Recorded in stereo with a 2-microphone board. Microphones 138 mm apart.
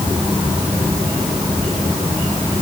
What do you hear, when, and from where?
Only background noise.